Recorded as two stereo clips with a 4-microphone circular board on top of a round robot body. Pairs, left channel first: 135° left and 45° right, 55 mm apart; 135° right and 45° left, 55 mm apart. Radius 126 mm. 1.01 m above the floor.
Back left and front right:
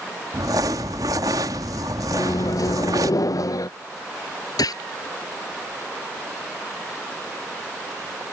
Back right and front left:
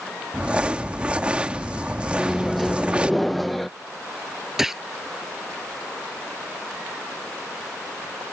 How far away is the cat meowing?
I don't hear a cat meowing.